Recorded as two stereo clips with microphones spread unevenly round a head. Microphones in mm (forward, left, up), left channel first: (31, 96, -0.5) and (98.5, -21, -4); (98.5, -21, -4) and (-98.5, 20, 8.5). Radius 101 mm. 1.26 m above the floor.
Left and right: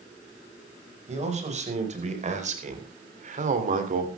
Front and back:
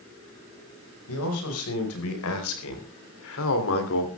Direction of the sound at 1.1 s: 25° right.